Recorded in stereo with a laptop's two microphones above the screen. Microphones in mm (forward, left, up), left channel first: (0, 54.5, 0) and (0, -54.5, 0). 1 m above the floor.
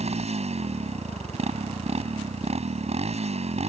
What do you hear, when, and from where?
0.0 s a motorcycle: 85° right